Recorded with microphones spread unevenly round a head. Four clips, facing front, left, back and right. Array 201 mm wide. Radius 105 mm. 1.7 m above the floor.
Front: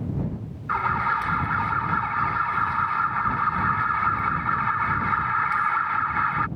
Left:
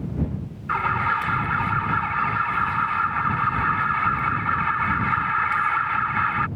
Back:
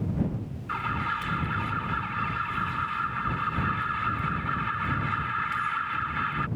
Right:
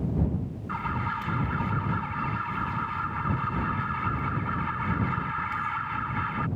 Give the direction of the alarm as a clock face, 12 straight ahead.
10 o'clock.